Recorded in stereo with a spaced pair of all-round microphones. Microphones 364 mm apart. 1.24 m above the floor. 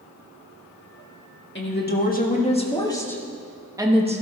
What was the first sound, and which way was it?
A woman speaking, 30° left (ahead or behind).